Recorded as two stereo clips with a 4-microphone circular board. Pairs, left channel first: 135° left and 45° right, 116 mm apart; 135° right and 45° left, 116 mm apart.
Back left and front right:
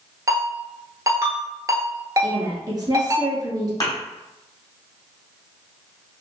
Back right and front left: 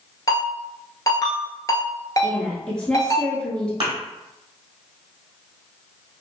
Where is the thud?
85° left, 1.8 m.